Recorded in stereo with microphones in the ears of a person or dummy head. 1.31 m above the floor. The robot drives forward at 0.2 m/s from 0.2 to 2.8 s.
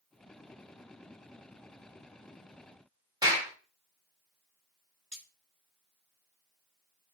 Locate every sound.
3.2 s a clap: 20° right (ahead or behind), 1.8 m
5.1 s cutlery clinking: 10° left (ahead or behind), 1.8 m